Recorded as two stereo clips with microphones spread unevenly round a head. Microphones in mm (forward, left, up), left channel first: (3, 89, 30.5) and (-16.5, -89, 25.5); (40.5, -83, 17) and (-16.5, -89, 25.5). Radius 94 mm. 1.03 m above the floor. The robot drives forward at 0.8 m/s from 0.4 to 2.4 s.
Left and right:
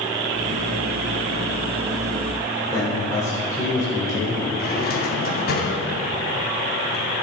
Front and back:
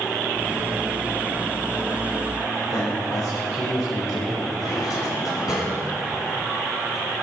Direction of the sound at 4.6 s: 45° left.